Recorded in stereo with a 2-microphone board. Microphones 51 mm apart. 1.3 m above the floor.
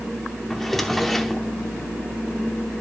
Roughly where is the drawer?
Centre.